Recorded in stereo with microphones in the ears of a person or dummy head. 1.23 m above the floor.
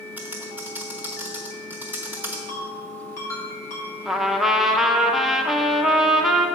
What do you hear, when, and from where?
0.2 s typing on a keyboard: 10° right (ahead or behind), 1.1 m
2.5 s a ringtone: 15° left (ahead or behind), 2.5 m
4.0 s a trumpet: centre (ahead or behind), 0.6 m